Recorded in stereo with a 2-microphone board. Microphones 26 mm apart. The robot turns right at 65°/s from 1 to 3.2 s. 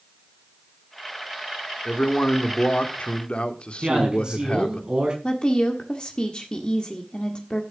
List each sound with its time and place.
1.9 s a man speaking: 40° left, 1.7 m; by 4.8 s 125° left, 1.7 m
3.8 s a man speaking: 40° right (ahead or behind), 6 m
5.2 s a woman speaking: 40° left (ahead or behind), 1.6 m